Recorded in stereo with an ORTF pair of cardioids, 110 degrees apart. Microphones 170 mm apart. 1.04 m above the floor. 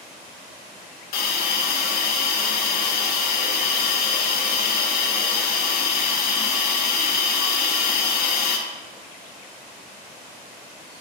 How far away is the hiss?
About 0.6 m.